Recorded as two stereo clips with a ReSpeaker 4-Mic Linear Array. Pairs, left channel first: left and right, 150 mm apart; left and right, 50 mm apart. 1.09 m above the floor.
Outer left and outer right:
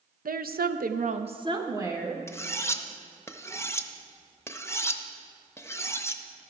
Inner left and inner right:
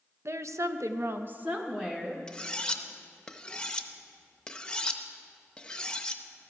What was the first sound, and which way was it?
A woman speaking, 65° right (ahead or behind).